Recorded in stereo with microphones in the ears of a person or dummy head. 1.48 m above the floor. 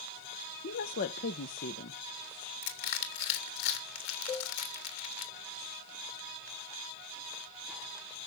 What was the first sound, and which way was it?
A woman speaking, 45° left (ahead or behind).